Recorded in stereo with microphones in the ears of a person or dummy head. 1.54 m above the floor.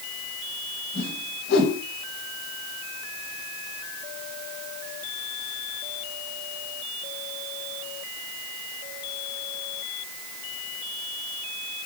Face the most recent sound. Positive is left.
turn(degrees=60)  # may be behind; listen again after turning